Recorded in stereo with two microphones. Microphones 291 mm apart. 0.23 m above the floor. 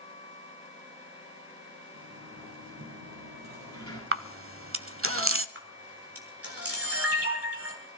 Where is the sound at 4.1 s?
50° right (ahead or behind), 0.7 m.